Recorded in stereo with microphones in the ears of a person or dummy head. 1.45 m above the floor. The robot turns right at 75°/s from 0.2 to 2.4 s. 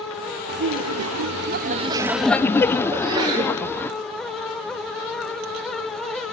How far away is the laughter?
About 0.8 m.